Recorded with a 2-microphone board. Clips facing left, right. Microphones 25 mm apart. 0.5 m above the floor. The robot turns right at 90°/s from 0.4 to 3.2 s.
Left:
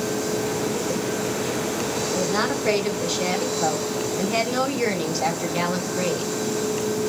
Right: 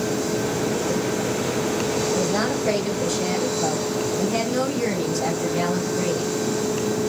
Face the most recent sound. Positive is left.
turn(degrees=135)